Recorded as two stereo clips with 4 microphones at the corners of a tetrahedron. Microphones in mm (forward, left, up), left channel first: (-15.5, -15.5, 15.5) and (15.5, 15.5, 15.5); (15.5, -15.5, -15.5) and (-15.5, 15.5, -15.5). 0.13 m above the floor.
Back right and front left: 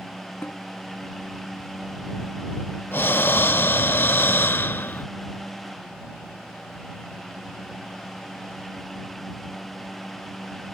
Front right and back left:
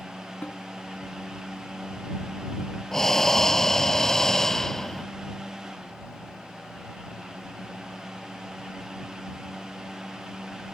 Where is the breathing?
120° right.